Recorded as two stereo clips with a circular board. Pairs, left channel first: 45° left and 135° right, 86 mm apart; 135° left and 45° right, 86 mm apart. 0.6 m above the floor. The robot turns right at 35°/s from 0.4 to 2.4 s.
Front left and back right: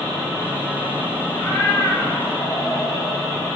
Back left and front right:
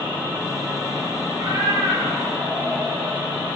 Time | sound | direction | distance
1.3 | a cat meowing | 25° right | 5.5 m